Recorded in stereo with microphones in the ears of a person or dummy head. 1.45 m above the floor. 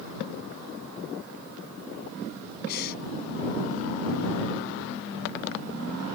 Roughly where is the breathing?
Left.